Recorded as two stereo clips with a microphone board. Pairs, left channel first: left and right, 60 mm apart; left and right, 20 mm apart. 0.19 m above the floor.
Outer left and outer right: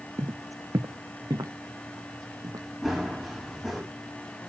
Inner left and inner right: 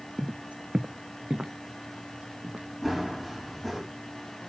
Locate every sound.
0.2 s footsteps: 50° right (ahead or behind), 0.6 m; by 2.7 s 85° right, 2 m
2.8 s running footsteps: centre (ahead or behind), 8 m